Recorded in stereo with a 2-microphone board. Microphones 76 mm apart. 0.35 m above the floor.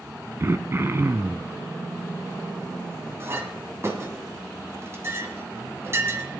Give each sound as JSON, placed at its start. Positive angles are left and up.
{"t": 0.4, "sound": "throat clearing", "side_deg": -35, "distance_m": 0.6}
{"t": 3.2, "sound": "a clink", "side_deg": -35, "distance_m": 1.8}